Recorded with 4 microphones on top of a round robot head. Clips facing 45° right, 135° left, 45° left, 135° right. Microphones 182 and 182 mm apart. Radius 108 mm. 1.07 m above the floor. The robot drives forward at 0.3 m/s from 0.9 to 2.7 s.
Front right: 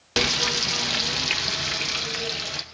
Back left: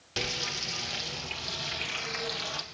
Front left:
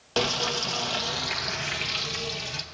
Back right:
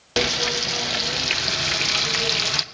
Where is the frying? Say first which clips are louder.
Front right 10 dB, back right 3 dB; 60° right, 0.5 m; by 2.6 s 120° right, 0.5 m.